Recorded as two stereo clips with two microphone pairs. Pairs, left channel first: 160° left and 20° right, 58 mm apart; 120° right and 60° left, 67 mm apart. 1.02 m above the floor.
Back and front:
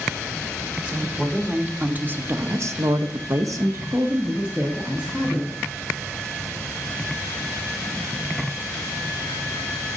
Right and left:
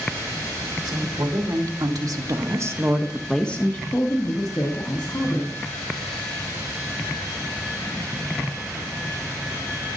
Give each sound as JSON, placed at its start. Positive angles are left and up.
{"t": 0.8, "sound": "a woman speaking", "azimuth_deg": 50, "distance_m": 1.9}